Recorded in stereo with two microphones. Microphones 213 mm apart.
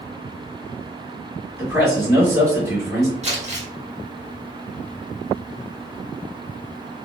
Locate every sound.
1.6 s a man speaking: 15° right (ahead or behind), 1.7 m
3.2 s crumpling: 30° right (ahead or behind), 1.2 m